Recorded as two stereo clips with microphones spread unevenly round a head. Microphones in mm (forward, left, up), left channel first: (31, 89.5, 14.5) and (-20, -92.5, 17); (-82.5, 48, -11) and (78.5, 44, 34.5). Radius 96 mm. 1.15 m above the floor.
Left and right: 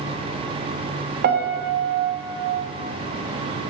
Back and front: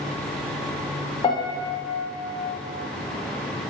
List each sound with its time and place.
1.2 s a piano: 130° right, 0.5 m